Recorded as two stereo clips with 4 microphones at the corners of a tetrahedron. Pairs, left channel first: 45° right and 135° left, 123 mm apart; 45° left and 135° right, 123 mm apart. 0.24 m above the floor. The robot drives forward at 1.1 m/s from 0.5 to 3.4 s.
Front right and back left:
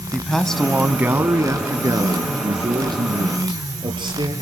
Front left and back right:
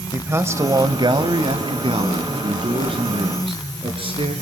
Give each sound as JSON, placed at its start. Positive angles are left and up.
{"t": 0.1, "sound": "a man speaking", "azimuth_deg": -125, "distance_m": 0.9}